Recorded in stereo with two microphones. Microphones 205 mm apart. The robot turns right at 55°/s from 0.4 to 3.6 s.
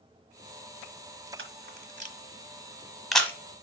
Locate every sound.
1.4 s a camera shutter: 75° right (ahead or behind), 1.0 m; by 3.4 s 10° left (ahead or behind), 1.0 m